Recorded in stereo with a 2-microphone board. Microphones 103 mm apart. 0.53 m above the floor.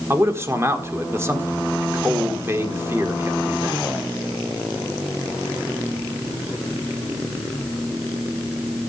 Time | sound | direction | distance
0.1 | a man speaking | 25° right (ahead or behind) | 1.7 m